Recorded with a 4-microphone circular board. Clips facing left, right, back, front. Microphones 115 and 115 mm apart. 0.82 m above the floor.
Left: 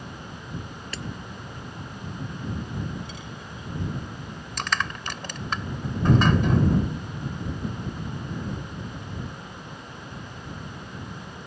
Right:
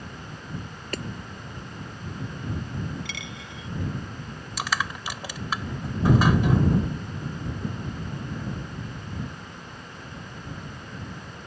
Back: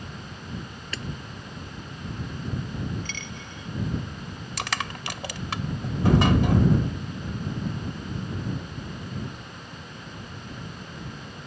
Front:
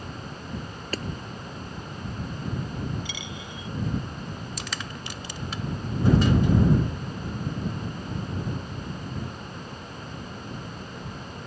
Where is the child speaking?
No child speaking in this recording.